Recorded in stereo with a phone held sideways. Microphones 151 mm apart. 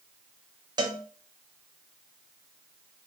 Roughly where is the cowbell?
Right.